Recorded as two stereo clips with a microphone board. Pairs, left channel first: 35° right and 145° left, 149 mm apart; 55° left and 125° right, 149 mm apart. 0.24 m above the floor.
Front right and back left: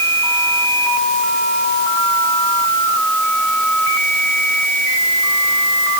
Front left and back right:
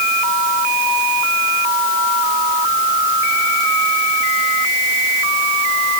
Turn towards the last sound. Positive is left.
No sound to turn to.